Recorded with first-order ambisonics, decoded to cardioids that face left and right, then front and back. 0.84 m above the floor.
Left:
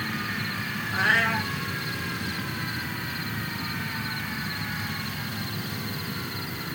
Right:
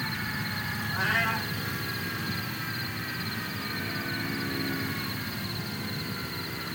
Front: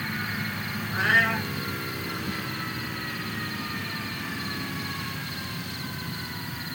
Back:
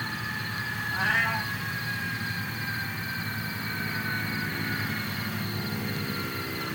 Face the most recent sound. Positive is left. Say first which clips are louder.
# left 5 dB, front 4 dB
turn(degrees=50)